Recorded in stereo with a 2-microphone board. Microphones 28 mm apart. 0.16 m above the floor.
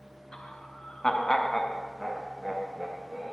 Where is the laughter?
30° left (ahead or behind), 2 m; by 3.3 s 15° right (ahead or behind), 3 m.